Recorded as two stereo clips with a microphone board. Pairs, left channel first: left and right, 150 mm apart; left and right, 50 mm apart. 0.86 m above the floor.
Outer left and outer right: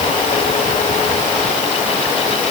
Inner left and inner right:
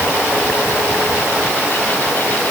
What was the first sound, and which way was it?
Only background noise.